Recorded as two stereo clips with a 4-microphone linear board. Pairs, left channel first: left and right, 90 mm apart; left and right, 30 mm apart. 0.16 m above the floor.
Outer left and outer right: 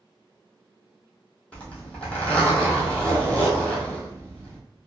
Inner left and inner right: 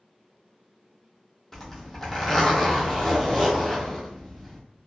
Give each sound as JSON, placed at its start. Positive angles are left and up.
{"t": 1.5, "sound": "a zipper", "side_deg": 15, "distance_m": 1.1}